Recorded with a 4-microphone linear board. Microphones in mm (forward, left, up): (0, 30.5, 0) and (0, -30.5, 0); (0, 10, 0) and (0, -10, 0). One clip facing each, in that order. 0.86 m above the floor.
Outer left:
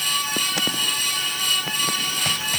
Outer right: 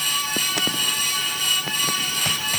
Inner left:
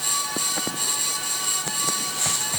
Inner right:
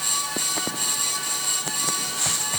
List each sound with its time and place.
Only background noise.